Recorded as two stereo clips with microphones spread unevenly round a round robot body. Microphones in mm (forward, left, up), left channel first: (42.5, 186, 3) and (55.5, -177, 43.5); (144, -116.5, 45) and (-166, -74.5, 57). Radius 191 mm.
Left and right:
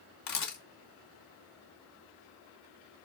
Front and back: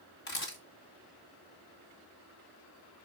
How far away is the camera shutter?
About 2.5 m.